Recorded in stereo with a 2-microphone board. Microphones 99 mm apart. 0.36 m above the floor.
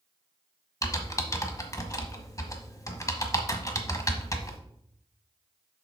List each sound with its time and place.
0.8 s typing on a keyboard: 30° left (ahead or behind), 1.1 m